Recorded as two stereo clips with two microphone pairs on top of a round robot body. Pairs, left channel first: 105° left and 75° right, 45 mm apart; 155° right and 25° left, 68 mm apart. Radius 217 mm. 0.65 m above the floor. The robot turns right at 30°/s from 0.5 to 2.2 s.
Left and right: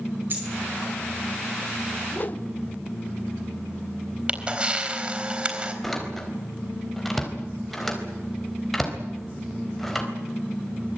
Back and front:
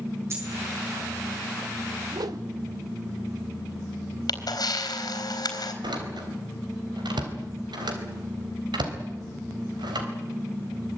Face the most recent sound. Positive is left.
turn(degrees=20)